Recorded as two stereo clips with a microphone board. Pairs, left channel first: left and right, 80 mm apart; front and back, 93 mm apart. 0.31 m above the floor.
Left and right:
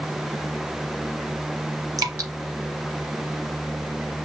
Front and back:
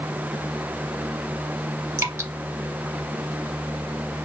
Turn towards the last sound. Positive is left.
turn(degrees=-125)